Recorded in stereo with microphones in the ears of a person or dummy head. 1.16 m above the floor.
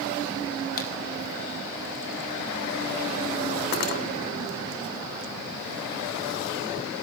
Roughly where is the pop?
Left.